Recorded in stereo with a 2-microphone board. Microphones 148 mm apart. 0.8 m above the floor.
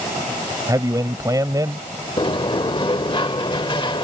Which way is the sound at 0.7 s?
25° right (ahead or behind).